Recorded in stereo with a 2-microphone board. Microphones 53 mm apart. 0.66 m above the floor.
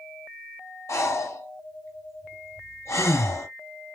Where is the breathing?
65° left (ahead or behind), 2.5 m.